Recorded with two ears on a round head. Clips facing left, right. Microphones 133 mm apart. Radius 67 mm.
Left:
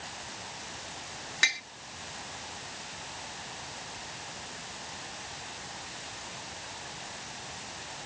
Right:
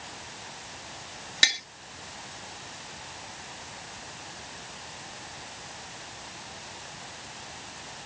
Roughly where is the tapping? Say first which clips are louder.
Right 2 dB; right.